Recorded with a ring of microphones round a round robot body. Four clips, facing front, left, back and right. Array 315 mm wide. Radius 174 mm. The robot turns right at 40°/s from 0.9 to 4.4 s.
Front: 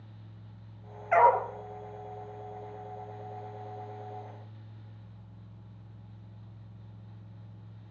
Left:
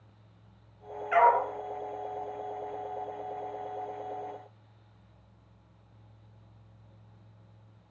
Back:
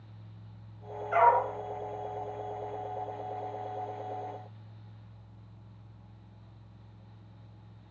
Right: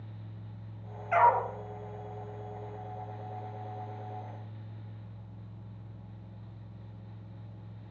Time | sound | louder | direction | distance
1.1 | a dog barking | left 1 dB, front 1 dB | 10° left | 3 m